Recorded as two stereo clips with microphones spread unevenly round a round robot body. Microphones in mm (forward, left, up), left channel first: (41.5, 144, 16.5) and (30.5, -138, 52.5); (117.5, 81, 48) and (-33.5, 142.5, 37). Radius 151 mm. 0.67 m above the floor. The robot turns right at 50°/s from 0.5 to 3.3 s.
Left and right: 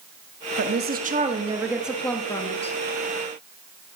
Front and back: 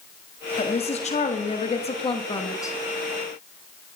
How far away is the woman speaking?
About 1.3 m.